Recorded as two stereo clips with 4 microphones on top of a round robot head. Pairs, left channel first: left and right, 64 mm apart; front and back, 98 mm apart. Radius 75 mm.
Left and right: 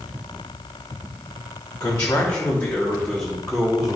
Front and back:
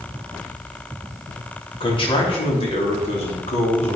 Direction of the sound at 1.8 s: 35° left.